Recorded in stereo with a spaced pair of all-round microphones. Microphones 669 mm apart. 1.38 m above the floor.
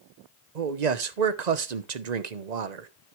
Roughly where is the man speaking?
Right.